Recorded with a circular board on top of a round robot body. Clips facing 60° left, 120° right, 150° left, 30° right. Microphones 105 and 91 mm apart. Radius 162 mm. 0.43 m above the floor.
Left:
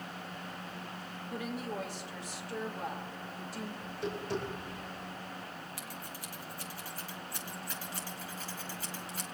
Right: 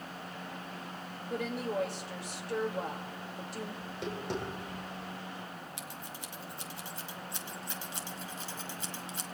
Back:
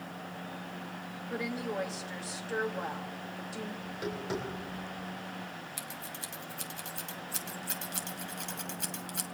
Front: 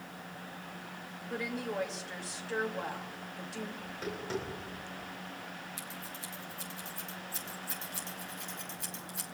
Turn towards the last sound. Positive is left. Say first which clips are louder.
# even, back 1 dB
turn(degrees=170)